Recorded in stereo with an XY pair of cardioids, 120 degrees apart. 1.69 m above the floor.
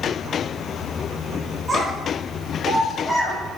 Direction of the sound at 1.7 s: 10° right.